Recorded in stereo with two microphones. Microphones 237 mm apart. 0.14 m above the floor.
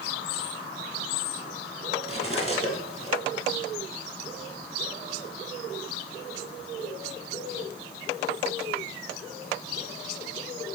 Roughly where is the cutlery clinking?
Left.